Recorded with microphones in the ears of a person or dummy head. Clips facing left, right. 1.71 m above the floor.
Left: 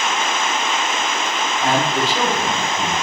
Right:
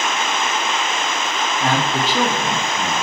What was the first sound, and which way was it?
A man speaking, 50° right (ahead or behind).